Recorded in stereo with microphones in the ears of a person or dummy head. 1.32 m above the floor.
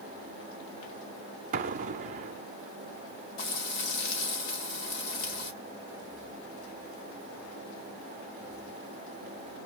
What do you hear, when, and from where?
1.5 s an explosion: 45° right (ahead or behind), 0.5 m
3.4 s frying: 70° left (ahead or behind), 2.5 m